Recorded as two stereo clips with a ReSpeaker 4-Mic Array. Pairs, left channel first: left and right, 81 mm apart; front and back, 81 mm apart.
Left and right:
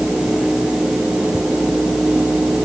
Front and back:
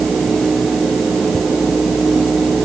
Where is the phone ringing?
No phone ringing in this recording.